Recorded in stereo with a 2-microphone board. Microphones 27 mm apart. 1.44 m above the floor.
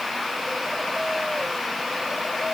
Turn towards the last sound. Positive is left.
No sound to turn to.